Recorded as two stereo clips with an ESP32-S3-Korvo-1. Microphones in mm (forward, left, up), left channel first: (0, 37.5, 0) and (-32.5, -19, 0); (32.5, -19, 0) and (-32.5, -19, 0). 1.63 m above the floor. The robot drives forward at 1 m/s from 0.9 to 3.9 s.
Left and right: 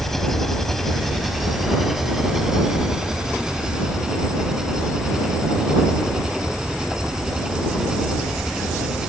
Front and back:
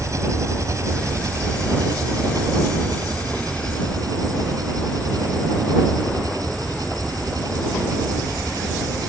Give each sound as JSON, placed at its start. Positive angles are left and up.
{"t": 0.0, "sound": "an engine running", "azimuth_deg": 145}